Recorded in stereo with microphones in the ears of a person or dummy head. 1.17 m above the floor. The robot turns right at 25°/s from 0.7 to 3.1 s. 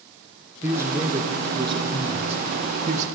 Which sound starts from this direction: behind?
A man speaking, at 0.6 s.